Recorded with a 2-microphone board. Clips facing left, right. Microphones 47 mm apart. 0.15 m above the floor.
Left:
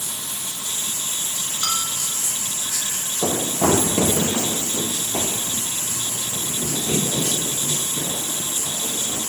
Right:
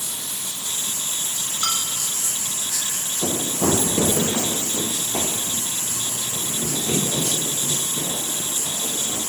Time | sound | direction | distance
0.0 | running water | 35° left (ahead or behind) | 7.5 m
1.6 | a bell | 10° right (ahead or behind) | 3 m
3.2 | running footsteps | 80° left | 0.6 m